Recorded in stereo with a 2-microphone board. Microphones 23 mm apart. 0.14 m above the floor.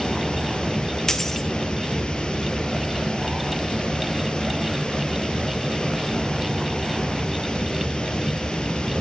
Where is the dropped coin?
20° left (ahead or behind), 1.5 m.